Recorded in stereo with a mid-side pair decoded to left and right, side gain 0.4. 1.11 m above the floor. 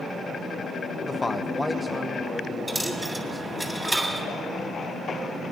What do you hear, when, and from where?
1.1 s a man speaking: 40° left, 0.8 m; by 3.5 s 10° right, 3 m
2.7 s a dropped coin: 10° right, 3 m